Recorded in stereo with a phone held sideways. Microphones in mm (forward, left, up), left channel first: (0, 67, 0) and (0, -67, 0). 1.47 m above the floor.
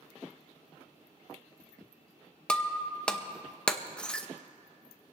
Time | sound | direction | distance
2.5 | breaking glass | 10° left (ahead or behind) | 0.8 m